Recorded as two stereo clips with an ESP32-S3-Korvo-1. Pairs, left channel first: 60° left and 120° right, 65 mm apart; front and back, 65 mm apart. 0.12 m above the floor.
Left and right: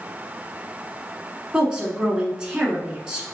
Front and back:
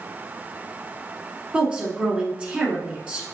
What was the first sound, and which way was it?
A woman speaking, 170° right.